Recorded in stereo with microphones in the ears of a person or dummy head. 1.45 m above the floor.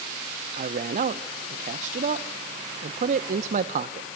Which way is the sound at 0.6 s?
45° right (ahead or behind).